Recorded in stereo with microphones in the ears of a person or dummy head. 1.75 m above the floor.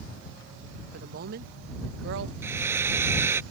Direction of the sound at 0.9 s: 60° right (ahead or behind).